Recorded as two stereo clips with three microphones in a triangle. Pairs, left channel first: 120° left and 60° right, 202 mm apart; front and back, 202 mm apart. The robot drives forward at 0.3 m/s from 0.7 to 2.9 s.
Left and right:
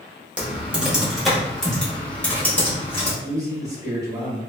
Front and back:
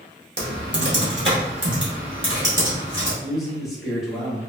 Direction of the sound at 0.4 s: 145° right.